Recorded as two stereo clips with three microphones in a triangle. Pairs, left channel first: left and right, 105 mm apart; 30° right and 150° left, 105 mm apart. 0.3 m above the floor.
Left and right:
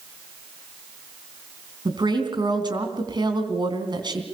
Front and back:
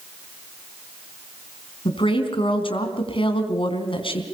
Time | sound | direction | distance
1.9 | a woman speaking | 50° right | 3 m